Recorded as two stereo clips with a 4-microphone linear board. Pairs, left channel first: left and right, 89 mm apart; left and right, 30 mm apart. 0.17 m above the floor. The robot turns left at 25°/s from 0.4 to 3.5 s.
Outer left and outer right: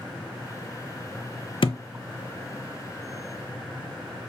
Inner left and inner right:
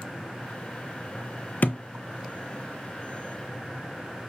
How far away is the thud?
About 0.5 m.